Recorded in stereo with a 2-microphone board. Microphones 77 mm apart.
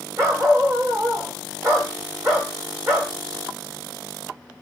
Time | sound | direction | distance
0.2 | a dog barking | 40° right (ahead or behind) | 3 m